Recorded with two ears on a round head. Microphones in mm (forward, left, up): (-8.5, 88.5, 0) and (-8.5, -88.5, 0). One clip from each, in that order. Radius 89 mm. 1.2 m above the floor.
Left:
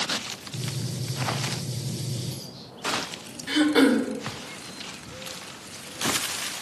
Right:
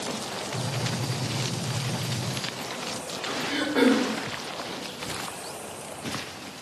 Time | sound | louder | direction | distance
0.5 | a gunshot | right 5 dB | 70° left (ahead or behind) | 3.5 m
3.5 | throat clearing | left 3 dB | 70° left (ahead or behind) | 1.1 m